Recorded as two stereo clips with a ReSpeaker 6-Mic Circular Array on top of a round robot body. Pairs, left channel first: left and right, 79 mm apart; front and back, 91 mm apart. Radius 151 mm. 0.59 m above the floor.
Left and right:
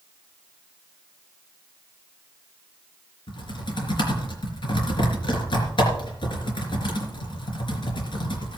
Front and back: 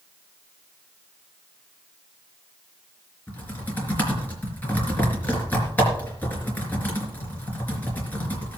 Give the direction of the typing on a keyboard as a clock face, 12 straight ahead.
10 o'clock.